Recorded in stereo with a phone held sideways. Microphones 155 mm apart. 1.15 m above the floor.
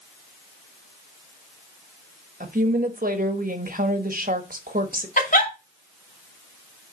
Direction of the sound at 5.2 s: 60° left (ahead or behind).